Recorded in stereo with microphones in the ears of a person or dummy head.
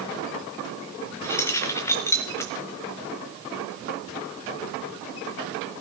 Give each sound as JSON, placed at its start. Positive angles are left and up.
{"t": 1.2, "sound": "keys jangling", "side_deg": 10, "distance_m": 0.6}